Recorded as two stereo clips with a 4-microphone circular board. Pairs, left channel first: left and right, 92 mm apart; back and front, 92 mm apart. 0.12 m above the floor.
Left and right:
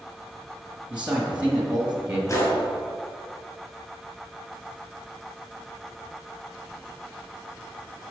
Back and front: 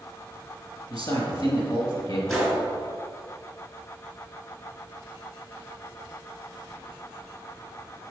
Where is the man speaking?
165° right, 2.0 m.